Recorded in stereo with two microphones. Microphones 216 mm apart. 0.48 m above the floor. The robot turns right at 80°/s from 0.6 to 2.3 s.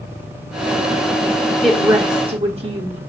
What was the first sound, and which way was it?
A woman speaking, straight behind.